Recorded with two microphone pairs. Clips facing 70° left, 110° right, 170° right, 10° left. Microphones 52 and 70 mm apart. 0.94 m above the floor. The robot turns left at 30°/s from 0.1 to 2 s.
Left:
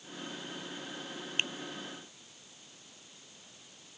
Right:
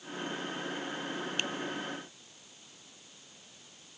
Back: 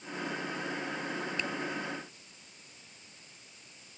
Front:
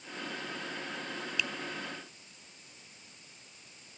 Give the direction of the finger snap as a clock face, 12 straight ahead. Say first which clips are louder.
Left 3 dB, front 3 dB; 8 o'clock.